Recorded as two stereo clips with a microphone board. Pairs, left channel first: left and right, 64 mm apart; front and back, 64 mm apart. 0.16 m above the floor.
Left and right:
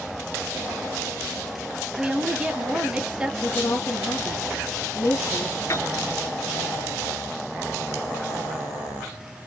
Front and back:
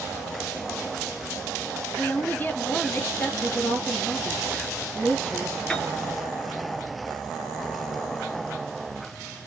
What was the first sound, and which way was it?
A woman speaking, 30° right.